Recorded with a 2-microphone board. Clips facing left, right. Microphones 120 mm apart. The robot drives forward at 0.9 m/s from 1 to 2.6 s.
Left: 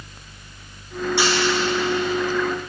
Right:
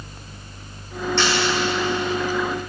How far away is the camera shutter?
About 7.5 m.